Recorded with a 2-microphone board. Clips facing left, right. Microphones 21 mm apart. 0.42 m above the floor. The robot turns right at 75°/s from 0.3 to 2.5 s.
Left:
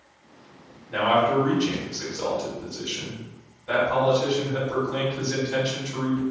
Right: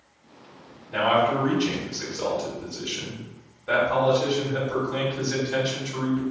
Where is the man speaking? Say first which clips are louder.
Left 1 dB; 160° left, 1.7 m; by 6.2 s 80° right, 1.7 m.